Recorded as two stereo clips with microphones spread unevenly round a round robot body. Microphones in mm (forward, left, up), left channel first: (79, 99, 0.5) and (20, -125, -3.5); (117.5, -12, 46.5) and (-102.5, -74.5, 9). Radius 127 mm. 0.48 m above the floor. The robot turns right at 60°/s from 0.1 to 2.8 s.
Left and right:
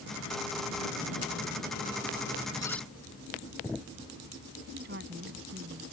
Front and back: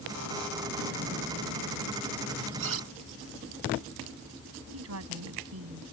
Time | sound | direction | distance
2.6 | cutlery clinking | 150° left | ?
4.7 | a woman speaking | 155° right | ?